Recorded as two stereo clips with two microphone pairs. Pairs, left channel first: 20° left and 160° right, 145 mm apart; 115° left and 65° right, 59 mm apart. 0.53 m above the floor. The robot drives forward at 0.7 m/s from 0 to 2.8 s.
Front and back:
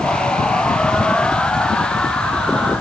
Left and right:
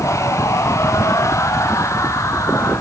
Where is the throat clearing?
No throat clearing in this recording.